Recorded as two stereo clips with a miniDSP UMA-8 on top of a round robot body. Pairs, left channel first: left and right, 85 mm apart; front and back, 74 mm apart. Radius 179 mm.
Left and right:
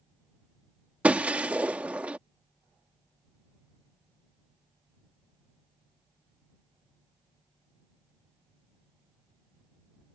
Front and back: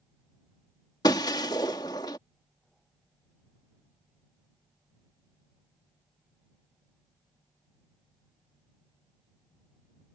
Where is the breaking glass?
15° right.